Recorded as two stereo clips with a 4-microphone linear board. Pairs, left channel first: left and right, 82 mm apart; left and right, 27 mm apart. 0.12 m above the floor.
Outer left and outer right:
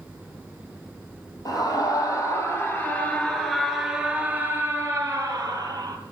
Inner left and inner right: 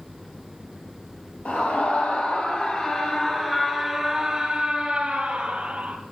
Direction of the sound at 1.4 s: 50° left (ahead or behind).